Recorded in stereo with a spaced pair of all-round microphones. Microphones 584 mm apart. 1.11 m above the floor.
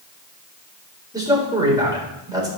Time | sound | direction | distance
1.1 | a man speaking | 5° right (ahead or behind) | 4 m